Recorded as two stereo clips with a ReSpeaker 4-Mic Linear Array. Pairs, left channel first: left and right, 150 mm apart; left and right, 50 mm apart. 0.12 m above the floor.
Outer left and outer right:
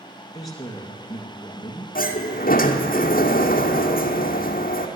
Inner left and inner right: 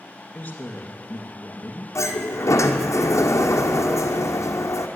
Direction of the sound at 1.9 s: 80° left.